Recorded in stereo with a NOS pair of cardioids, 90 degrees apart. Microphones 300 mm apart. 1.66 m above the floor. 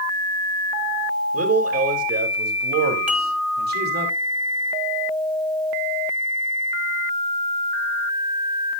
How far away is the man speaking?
About 3.5 m.